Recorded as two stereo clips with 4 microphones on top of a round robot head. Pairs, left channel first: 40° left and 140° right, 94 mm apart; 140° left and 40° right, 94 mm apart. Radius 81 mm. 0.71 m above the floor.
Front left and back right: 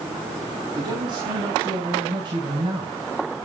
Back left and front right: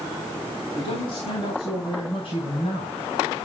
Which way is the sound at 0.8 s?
170° left.